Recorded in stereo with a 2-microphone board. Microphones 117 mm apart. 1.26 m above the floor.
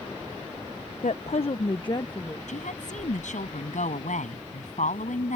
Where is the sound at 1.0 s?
75° left (ahead or behind); by 2.4 s 30° left (ahead or behind).